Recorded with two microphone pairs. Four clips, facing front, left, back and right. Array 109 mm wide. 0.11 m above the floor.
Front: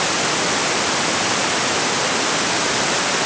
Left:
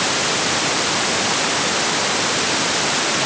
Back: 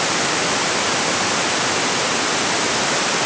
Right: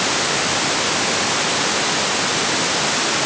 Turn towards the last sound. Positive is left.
No sound to turn to.